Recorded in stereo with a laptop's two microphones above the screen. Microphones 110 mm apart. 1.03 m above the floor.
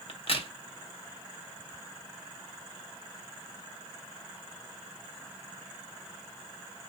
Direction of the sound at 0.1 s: 60° left (ahead or behind).